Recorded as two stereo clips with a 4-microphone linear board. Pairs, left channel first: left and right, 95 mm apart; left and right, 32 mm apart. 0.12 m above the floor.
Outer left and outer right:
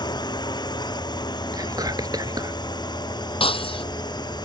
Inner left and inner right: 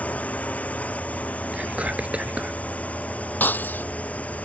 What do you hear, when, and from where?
0.0 s a drone: 50° left (ahead or behind)
1.5 s whispering: 45° right (ahead or behind)
3.4 s breaking glass: 70° left (ahead or behind)